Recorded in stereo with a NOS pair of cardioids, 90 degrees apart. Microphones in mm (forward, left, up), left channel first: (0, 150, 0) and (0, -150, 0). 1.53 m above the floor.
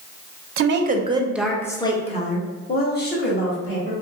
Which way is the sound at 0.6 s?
45° right.